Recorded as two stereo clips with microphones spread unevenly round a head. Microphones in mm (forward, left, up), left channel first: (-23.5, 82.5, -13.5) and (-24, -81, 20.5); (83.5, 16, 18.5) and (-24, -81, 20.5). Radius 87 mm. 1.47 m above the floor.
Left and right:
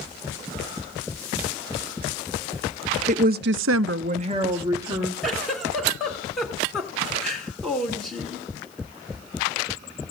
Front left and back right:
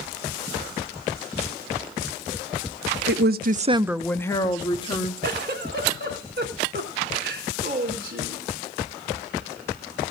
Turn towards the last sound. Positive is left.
turn(degrees=180)